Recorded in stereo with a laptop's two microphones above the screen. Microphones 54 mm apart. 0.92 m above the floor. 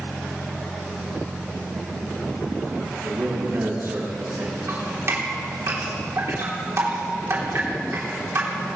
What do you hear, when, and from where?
3.0 s a man speaking: 50° right (ahead or behind), 6.5 m
4.7 s dripping: 50° right (ahead or behind), 3 m